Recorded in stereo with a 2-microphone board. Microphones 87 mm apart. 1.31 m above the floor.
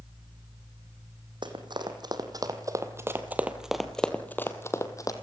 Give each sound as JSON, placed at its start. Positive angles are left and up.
{"t": 1.4, "sound": "running footsteps", "side_deg": -60, "distance_m": 3.0}